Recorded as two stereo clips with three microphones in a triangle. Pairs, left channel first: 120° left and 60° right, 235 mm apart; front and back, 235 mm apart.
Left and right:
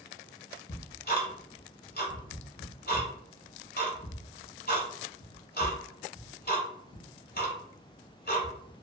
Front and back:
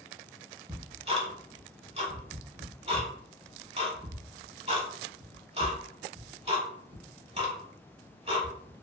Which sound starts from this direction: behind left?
Ticking, at 0.7 s.